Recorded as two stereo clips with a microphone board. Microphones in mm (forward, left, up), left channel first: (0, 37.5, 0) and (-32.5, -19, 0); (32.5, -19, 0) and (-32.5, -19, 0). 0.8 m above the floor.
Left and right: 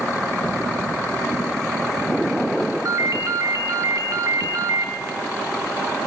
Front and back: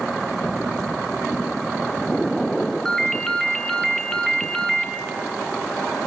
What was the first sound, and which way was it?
A ringtone, 80° right.